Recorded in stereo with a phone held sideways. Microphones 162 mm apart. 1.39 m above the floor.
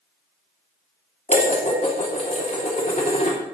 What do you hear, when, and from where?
1.3 s dishes clattering: 45° left (ahead or behind), 2.5 m